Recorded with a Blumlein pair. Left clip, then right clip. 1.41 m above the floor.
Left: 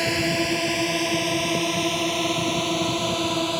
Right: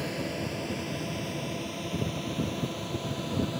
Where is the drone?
55° left.